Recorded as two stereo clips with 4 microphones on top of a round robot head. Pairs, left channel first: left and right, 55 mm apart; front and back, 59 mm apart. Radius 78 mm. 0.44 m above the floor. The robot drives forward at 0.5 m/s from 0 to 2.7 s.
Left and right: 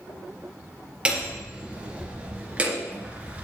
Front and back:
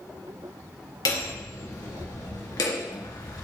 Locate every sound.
1.1 s hammering: 20° right, 3 m; by 3.4 s 25° right, 2.5 m